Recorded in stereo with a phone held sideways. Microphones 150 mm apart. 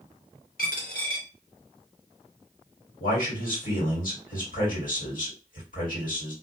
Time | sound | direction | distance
0.6 | a dropped coin | 75° left (ahead or behind) | 0.9 m
3.0 | a man speaking | 70° left (ahead or behind) | 1.6 m